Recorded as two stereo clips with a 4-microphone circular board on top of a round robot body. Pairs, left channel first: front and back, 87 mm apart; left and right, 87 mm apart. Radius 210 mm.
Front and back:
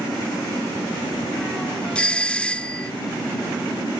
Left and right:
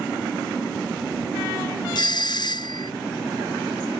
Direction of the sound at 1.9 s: 75° left.